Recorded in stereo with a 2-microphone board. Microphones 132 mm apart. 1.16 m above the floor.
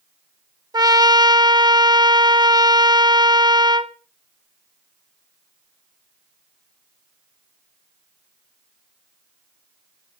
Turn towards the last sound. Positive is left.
turn(degrees=-30)  # may be behind; listen again after turning